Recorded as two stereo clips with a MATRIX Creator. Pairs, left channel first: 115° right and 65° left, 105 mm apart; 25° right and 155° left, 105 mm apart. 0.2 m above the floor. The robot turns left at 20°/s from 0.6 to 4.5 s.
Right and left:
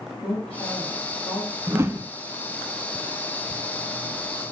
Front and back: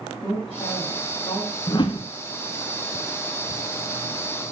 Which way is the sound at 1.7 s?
10° left.